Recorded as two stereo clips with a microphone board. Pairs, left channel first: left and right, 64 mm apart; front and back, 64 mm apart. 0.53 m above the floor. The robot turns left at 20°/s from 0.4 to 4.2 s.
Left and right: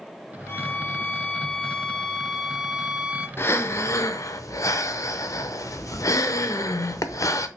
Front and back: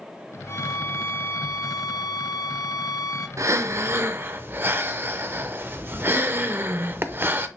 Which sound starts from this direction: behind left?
Breathing, at 3.4 s.